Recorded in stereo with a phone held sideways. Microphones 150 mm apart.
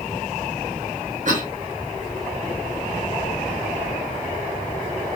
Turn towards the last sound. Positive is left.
turn(degrees=-60)  # may be behind; listen again after turning